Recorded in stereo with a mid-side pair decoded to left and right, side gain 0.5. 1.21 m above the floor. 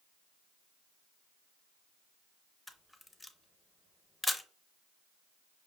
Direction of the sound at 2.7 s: 15° left.